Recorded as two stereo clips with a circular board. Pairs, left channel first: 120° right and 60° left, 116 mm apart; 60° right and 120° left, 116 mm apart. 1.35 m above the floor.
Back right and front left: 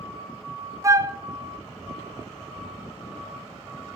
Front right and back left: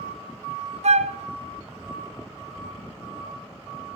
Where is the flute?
120° left, 0.5 m.